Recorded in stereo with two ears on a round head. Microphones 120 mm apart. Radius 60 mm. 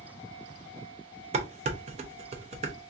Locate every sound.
1.3 s dishes clattering: 50° right (ahead or behind), 0.7 m